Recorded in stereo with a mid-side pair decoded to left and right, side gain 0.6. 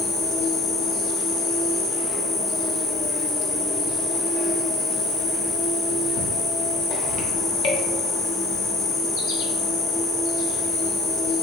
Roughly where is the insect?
Left.